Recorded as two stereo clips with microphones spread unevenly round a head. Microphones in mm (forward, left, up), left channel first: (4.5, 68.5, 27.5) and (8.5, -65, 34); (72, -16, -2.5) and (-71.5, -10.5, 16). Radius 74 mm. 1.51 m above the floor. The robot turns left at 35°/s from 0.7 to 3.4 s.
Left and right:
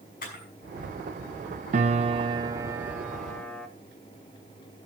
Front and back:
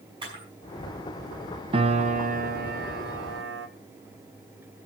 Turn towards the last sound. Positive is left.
turn(degrees=175)